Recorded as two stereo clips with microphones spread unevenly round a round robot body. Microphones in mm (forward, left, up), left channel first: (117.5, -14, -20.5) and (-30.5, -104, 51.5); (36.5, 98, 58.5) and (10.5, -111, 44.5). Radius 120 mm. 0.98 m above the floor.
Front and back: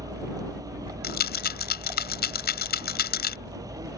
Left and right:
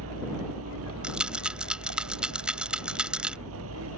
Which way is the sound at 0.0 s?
80° right.